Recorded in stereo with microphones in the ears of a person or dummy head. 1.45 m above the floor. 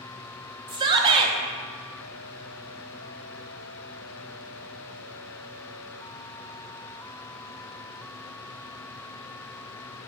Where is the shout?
30° right (ahead or behind), 0.9 m.